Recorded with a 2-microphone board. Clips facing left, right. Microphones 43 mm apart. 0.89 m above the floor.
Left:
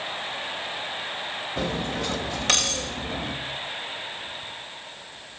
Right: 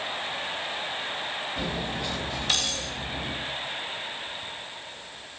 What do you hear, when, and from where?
1.6 s cutlery clinking: 80° left, 2.5 m